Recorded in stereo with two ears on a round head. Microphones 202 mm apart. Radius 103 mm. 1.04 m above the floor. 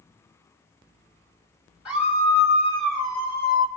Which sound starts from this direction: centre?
A scream, at 1.9 s.